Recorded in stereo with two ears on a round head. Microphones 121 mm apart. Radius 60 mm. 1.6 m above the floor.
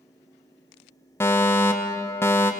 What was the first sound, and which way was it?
A fire alarm, 20° left (ahead or behind).